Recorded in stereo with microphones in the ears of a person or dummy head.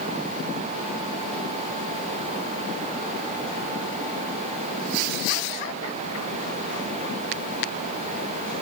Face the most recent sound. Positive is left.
No sound to turn to.